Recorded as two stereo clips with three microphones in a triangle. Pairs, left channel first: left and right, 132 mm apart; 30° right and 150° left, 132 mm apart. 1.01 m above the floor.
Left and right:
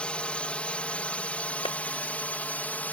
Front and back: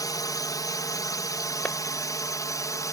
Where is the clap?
50° left.